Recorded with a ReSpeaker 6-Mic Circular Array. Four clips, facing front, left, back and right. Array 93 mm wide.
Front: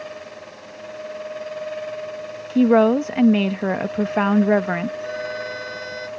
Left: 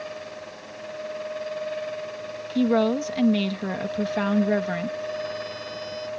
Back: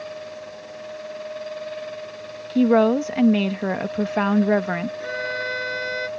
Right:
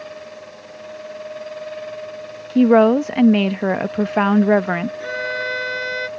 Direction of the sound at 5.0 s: 115° right.